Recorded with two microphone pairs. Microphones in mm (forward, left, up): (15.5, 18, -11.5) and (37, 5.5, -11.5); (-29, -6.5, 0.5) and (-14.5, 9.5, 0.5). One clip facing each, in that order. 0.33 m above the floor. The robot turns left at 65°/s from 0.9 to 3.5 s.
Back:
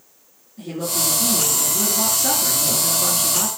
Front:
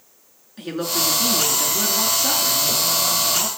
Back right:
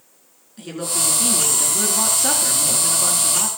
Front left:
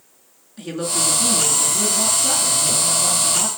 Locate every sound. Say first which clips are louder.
0.6 s a woman speaking: front 2 dB, front left 2 dB; 40° right, 4.5 m; by 3.5 s 155° left, 4.5 m